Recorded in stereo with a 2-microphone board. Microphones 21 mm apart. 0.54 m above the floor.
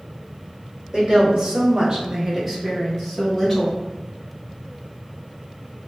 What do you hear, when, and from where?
0.9 s a woman speaking: 35° right (ahead or behind), 1.6 m; by 3.8 s 25° left (ahead or behind), 1.3 m